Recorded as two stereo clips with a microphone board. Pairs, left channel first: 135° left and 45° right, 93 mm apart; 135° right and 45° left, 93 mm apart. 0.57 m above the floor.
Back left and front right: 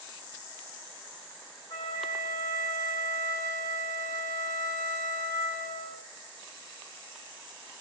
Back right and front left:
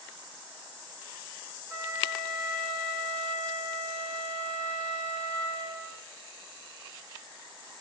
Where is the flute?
100° left, 0.9 m.